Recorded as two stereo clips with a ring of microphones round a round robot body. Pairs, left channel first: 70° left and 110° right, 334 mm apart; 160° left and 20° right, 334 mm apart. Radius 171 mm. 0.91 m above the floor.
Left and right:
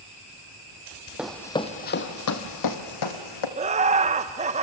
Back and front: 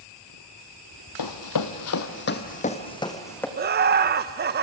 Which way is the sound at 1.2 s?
160° left.